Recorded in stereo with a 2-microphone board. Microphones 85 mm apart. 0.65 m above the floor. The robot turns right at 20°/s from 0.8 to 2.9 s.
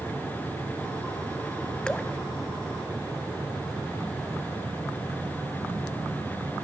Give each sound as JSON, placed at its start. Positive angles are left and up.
{"t": 1.9, "sound": "dripping", "side_deg": 10, "distance_m": 0.6}